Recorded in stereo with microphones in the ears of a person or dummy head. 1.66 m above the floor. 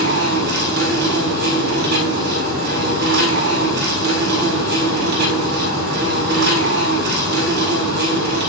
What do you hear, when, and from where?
0.0 s an insect: 55° right (ahead or behind), 6 m